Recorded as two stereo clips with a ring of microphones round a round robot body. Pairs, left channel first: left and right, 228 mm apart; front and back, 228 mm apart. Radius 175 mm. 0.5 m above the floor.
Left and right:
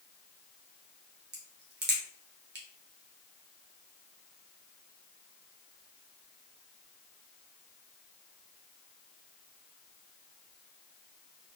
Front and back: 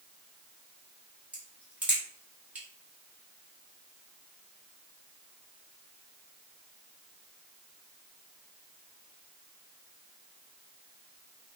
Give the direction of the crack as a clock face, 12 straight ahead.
3 o'clock.